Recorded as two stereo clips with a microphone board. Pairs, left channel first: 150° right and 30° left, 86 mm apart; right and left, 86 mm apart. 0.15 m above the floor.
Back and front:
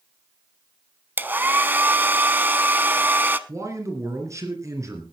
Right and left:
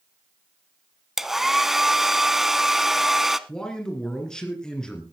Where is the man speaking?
10° right, 2.5 m.